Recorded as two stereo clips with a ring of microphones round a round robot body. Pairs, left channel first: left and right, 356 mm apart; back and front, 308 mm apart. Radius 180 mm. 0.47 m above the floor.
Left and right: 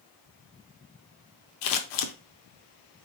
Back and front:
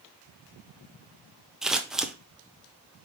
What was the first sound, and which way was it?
Scissors, 90° left.